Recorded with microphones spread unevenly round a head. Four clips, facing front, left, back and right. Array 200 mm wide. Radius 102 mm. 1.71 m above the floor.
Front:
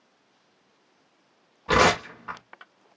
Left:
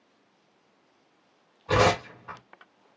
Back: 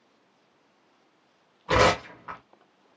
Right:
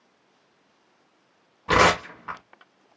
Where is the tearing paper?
50° right, 1.7 m.